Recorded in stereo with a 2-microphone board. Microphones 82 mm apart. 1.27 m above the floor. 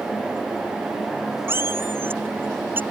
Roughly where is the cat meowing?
Right.